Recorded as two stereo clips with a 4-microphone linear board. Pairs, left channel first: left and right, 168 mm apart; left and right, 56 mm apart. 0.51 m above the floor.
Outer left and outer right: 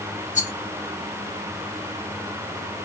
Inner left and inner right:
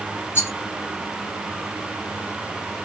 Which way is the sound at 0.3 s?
45° left (ahead or behind).